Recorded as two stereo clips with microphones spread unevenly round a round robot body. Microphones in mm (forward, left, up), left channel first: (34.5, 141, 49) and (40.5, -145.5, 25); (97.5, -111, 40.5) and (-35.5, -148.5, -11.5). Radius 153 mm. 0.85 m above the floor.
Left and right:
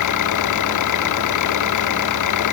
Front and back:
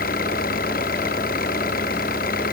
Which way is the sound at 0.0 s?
70° left.